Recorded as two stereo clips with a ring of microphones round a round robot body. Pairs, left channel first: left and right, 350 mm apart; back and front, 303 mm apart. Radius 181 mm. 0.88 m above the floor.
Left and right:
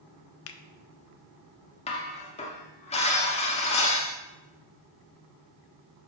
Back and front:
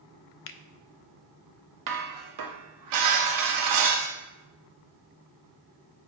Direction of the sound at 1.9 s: 15° left.